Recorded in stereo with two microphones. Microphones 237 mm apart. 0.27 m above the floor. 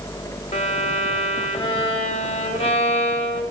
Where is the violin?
25° left (ahead or behind), 1.2 m.